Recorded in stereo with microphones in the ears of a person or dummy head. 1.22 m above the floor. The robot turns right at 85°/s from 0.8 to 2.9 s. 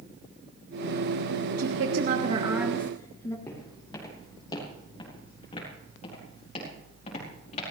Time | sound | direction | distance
1.6 | a woman speaking | 95° right | 1.4 m
3.5 | footsteps | 15° left (ahead or behind) | 3 m